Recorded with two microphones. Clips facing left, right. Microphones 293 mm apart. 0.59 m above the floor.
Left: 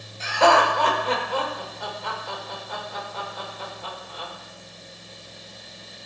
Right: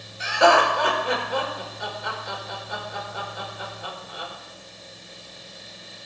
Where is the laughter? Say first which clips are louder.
Even; 15° right (ahead or behind), 2.5 m.